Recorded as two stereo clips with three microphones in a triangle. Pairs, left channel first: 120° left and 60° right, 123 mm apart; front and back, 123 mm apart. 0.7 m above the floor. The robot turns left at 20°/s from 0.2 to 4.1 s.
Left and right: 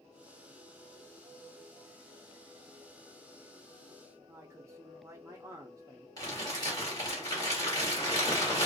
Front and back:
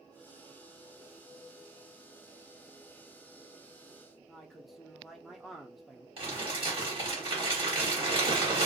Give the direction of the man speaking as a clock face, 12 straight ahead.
3 o'clock.